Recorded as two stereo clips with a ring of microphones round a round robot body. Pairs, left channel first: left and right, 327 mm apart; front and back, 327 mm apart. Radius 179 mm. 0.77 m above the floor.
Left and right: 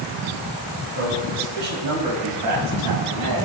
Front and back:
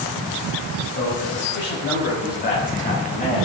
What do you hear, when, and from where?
0.9 s a man speaking: 50° right, 5.5 m; by 3.5 s 70° right, 6 m